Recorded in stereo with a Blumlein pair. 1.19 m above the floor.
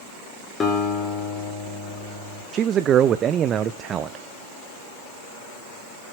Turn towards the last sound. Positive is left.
turn(degrees=-25)